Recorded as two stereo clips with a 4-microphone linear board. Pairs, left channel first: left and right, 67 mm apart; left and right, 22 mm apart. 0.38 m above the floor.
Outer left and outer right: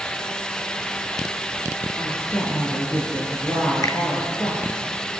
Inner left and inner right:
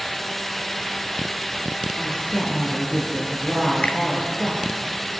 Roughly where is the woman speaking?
Left.